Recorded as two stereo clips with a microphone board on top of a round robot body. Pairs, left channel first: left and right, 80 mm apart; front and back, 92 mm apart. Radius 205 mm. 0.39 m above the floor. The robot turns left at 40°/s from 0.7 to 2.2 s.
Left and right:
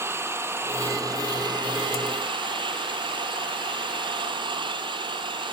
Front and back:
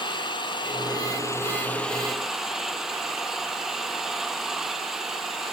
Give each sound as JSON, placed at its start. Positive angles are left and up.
{"t": 0.0, "sound": "an engine running", "azimuth_deg": -35}